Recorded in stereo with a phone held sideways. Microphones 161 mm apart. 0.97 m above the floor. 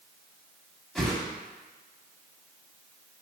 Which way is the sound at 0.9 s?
5° left (ahead or behind).